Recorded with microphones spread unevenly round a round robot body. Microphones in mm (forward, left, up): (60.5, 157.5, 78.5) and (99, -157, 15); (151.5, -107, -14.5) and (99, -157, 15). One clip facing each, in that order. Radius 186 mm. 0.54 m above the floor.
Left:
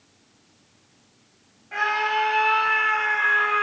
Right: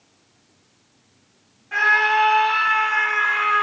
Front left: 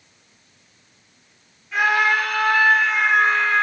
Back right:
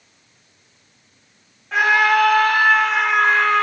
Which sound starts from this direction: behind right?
A scream, at 1.7 s.